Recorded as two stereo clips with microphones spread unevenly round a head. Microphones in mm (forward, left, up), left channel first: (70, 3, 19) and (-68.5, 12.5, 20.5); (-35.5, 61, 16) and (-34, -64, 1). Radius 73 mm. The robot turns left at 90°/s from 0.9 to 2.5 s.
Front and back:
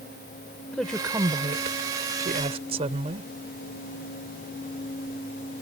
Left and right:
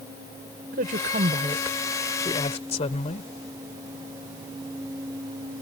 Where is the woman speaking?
90° right; by 3.3 s 125° left.